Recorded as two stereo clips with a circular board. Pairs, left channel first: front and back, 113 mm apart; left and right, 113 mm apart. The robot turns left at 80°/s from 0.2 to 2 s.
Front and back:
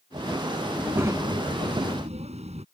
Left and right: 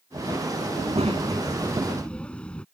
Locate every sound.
0.7 s a child speaking: 90° right; by 2.6 s 170° left